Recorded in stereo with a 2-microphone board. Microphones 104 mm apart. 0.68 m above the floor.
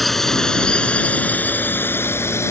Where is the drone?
Centre (ahead or behind); by 2.5 s 25° left (ahead or behind).